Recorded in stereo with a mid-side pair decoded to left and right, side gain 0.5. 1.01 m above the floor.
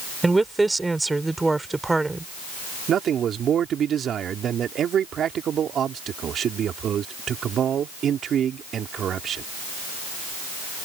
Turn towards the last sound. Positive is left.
turn(degrees=-55)